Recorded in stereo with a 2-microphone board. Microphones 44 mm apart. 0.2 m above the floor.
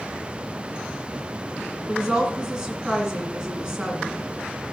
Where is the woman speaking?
15° right (ahead or behind), 2 m.